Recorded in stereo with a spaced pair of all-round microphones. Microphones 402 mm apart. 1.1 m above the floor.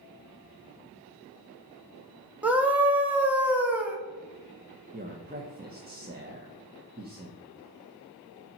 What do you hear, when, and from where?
2.4 s a scream: 5° right (ahead or behind), 1.3 m
4.9 s a man speaking: 25° right (ahead or behind), 0.9 m